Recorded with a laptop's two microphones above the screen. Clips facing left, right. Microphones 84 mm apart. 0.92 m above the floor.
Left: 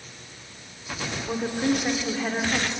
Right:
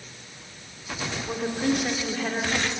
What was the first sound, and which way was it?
A woman speaking, 10° left (ahead or behind).